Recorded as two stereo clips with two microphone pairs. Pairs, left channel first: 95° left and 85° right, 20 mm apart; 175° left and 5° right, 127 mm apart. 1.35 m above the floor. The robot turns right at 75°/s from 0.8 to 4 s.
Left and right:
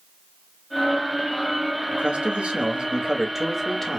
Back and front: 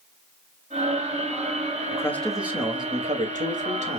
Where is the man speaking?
125° right, 2 m; by 4.0 s 35° left, 2 m.